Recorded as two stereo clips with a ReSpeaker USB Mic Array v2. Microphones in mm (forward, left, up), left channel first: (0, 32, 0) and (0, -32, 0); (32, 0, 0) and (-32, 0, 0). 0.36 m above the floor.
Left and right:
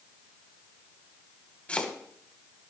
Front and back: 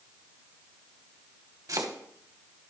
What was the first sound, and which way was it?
Chopping, 160° left.